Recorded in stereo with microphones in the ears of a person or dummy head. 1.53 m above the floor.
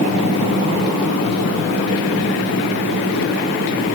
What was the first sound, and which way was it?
Only background noise.